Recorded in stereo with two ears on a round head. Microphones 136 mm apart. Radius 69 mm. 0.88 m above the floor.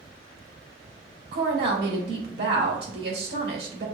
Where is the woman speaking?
70° right (ahead or behind), 1.7 m.